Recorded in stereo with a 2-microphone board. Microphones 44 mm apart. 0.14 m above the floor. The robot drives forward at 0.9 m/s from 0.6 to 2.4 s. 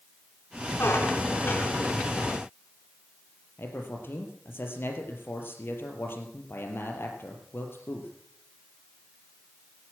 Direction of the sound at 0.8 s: 55° left (ahead or behind).